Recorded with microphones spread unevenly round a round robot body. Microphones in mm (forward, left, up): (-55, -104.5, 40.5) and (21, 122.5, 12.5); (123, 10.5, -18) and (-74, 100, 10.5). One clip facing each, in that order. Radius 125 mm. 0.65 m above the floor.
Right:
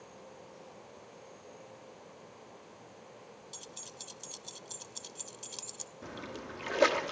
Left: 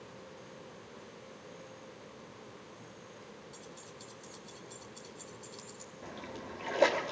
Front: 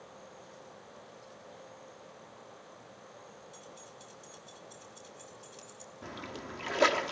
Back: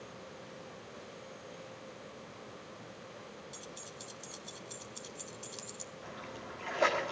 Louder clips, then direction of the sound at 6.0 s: Right 2 dB, front 5 dB; 35° right.